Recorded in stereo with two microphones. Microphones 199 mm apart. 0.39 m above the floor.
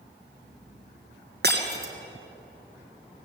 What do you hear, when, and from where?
1.4 s breaking glass: 55° right (ahead or behind), 2.5 m